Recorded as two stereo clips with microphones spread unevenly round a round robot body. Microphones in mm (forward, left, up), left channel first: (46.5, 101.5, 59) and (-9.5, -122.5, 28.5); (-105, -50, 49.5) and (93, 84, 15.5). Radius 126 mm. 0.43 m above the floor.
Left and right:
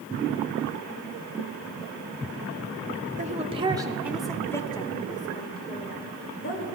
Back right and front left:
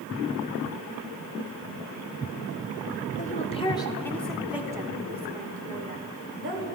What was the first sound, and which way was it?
A woman speaking, 95° right.